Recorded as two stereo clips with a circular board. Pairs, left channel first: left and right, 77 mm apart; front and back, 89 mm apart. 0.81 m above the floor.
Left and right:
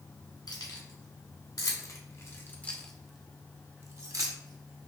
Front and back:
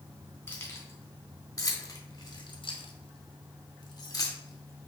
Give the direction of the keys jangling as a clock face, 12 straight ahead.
10 o'clock.